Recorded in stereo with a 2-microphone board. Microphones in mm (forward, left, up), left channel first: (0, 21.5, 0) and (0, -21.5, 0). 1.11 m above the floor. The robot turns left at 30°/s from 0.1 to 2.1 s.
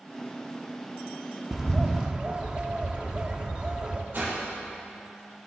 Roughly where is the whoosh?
Right.